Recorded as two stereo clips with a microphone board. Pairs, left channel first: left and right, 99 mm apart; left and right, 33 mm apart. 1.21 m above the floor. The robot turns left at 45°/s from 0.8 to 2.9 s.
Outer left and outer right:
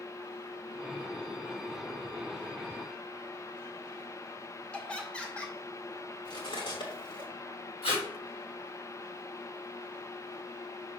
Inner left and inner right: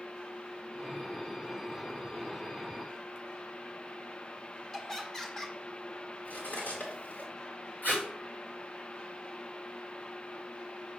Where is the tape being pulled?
80° left, 4 m.